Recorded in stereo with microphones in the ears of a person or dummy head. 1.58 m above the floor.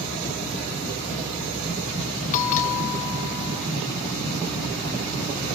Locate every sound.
2.3 s a bell: 45° left (ahead or behind), 1.3 m